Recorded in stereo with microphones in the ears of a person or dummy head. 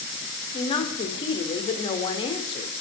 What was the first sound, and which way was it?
A woman speaking, 30° left (ahead or behind).